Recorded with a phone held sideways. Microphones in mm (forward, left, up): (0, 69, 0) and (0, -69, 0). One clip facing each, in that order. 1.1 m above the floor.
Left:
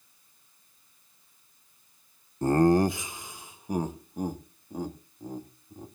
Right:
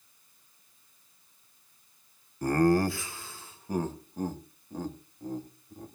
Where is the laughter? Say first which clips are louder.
Left 3 dB; 25° left (ahead or behind), 0.5 m; by 5.9 s 10° left (ahead or behind), 2.5 m.